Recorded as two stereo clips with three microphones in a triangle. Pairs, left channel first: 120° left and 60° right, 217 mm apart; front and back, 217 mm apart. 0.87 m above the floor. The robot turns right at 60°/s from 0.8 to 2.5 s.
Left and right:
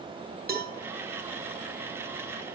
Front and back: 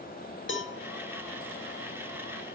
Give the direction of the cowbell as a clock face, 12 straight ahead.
1 o'clock.